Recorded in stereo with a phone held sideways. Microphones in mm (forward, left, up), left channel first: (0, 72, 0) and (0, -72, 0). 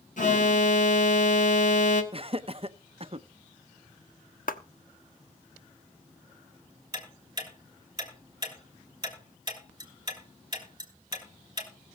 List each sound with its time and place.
0.2 s an alarm: 60° left (ahead or behind), 1.6 m
2.1 s laughter: 40° right (ahead or behind), 0.7 m
4.5 s a clap: 75° left (ahead or behind), 1.0 m
6.9 s ticking: 25° right (ahead or behind), 4.5 m